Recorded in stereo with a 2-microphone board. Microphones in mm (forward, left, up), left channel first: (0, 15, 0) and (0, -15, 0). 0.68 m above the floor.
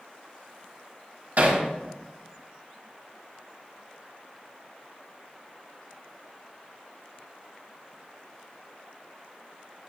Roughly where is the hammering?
Right.